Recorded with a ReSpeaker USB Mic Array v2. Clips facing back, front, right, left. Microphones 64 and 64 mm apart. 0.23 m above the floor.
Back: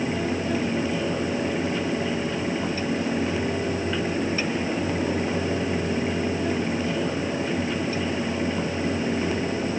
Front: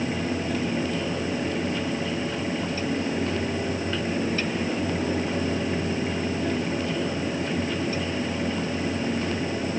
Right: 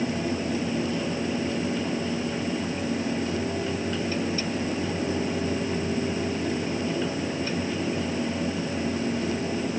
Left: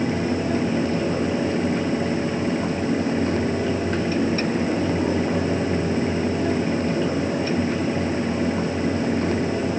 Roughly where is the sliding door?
I don't hear a sliding door.